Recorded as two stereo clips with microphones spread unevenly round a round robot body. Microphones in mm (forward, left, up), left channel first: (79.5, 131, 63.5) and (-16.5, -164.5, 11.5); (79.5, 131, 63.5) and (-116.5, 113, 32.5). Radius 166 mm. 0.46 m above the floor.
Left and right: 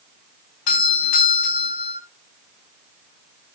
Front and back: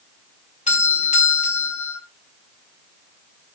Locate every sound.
0.7 s a doorbell: 60° left, 4 m